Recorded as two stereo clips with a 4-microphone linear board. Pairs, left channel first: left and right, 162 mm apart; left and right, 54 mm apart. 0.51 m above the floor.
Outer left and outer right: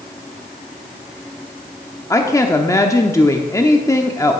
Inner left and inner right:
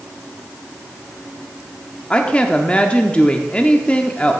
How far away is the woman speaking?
About 0.7 m.